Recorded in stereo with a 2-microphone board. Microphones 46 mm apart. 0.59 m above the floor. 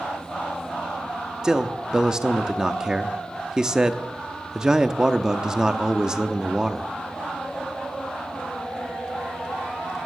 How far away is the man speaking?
About 0.7 m.